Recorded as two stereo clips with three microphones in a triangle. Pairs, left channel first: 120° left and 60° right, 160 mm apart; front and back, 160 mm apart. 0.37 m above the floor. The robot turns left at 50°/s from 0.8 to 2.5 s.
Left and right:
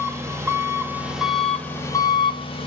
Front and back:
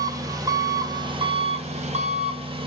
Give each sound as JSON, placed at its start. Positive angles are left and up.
{"t": 0.0, "sound": "an engine running", "azimuth_deg": -125, "distance_m": 0.8}